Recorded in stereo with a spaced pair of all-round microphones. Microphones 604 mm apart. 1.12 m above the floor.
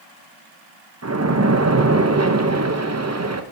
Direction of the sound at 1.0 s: 25° right (ahead or behind).